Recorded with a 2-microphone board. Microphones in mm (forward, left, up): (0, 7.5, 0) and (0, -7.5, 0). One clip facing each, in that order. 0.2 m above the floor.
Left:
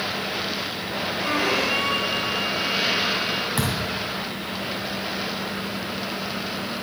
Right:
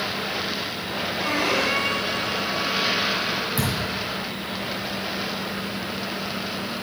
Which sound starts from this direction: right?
A violin, at 1.2 s.